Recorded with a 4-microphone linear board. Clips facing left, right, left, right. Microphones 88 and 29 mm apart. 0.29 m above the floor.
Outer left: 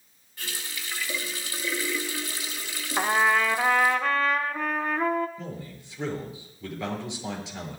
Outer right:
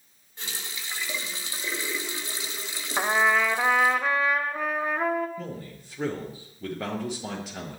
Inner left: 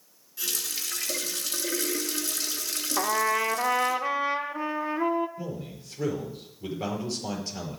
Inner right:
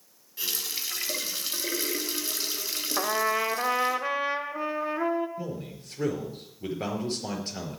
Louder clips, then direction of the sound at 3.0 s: Even, inner left 1 dB; 5° right (ahead or behind).